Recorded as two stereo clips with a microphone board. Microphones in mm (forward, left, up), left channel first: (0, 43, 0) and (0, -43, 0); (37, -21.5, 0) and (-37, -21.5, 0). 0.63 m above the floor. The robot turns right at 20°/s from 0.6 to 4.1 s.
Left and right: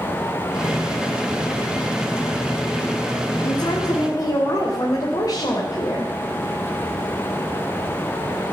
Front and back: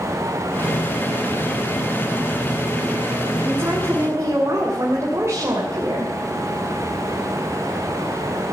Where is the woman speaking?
115° left, 3 m; by 6.1 s 130° left, 3 m.